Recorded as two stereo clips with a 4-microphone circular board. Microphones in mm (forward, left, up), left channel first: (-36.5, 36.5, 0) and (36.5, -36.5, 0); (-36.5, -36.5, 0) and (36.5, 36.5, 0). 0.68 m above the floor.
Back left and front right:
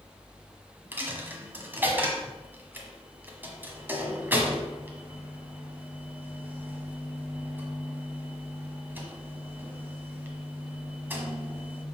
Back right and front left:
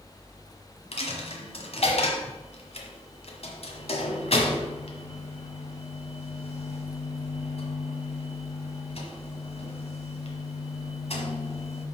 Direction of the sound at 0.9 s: 115° right.